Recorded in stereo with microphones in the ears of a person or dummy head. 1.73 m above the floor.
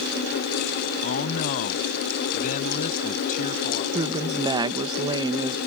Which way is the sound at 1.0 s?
45° left (ahead or behind).